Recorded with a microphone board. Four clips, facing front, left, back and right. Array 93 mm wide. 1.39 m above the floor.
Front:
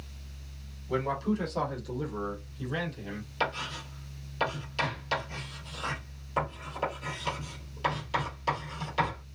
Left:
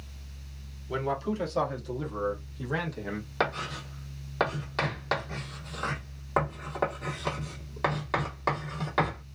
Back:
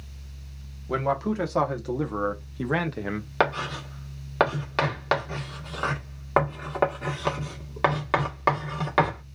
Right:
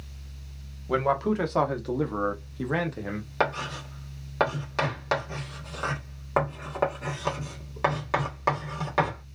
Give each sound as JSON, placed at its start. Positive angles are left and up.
{"t": 0.9, "sound": "a man speaking", "azimuth_deg": -120, "distance_m": 1.5}
{"t": 3.4, "sound": "writing", "azimuth_deg": -170, "distance_m": 1.5}